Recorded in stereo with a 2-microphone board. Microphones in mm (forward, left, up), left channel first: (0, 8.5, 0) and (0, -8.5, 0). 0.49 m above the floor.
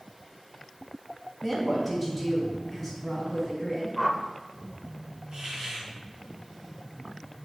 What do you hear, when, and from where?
1.4 s a woman speaking: 10° right (ahead or behind), 4 m; by 3.9 s centre (ahead or behind), 7.5 m
4.0 s a whoosh: 5° left (ahead or behind), 0.9 m
5.3 s a hiss: 45° right (ahead or behind), 4 m